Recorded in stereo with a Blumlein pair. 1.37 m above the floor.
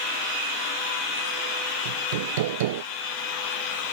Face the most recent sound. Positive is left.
turn(degrees=-55)